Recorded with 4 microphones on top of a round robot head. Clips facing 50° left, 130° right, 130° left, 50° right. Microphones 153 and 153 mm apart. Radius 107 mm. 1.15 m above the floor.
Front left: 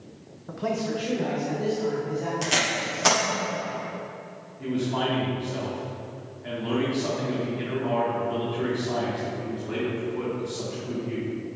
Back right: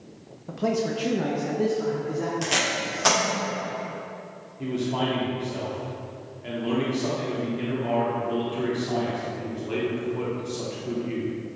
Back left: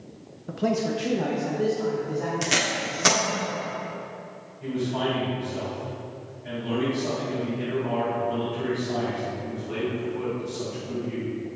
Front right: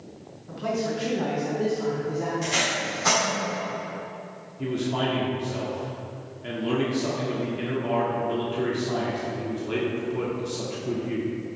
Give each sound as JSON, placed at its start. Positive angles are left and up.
{"t": 0.5, "sound": "a man speaking", "azimuth_deg": 155, "distance_m": 0.8}
{"t": 2.4, "sound": "tape being pulled", "azimuth_deg": 140, "distance_m": 1.3}
{"t": 4.6, "sound": "a man speaking", "azimuth_deg": -60, "distance_m": 2.5}